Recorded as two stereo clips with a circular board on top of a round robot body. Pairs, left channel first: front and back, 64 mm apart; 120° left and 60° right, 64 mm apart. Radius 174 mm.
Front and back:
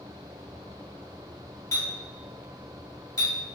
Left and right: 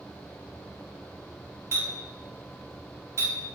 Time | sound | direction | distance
1.7 | a clink | 15° right | 1.7 m